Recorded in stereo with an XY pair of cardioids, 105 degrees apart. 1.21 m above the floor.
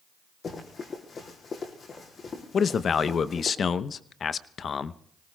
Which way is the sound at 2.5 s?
45° left.